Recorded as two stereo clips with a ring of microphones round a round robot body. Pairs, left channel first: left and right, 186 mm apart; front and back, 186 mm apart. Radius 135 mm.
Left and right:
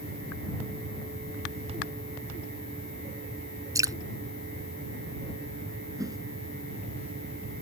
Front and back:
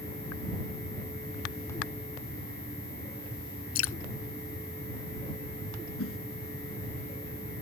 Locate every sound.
3.8 s dripping: 15° right
6.0 s a whoosh: 20° right